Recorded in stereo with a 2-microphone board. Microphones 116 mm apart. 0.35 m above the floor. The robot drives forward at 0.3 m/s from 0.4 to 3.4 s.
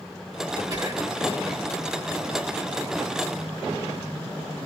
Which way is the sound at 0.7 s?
30° right (ahead or behind).